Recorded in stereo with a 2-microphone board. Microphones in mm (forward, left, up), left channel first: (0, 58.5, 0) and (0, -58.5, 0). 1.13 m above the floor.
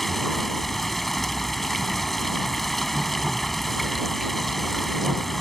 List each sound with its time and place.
0.0 s running water: centre (ahead or behind)